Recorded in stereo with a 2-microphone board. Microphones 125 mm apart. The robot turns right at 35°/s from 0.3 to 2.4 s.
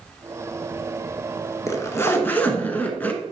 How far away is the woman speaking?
I don't hear a woman speaking.